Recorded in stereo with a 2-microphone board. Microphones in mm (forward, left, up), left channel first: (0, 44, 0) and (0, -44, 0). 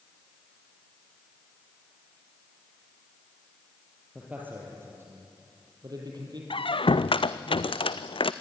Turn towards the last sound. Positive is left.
turn(degrees=70)  # may be behind; listen again after turning